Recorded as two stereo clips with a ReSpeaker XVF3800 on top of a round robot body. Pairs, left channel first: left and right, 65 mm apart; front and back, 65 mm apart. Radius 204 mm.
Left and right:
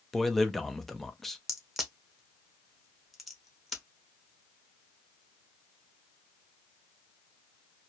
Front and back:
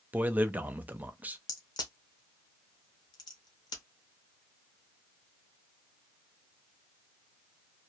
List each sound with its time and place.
0.1 s a man speaking: 170° left, 0.7 m
1.5 s a crack: straight ahead, 0.7 m